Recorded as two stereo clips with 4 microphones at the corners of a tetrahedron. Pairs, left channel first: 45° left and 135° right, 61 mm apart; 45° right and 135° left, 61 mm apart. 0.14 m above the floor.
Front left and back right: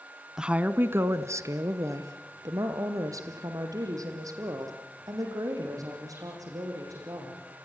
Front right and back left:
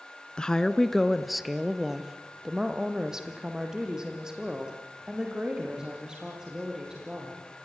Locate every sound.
0.4 s a woman speaking: 80° right, 1.1 m; by 7.5 s 145° right, 9.5 m